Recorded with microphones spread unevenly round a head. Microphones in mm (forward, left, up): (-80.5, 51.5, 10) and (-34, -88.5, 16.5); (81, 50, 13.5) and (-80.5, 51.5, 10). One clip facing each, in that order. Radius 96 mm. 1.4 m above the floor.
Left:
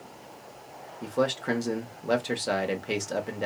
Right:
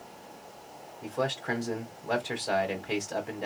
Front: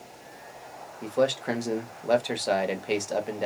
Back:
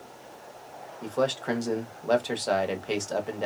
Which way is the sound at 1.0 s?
80° left.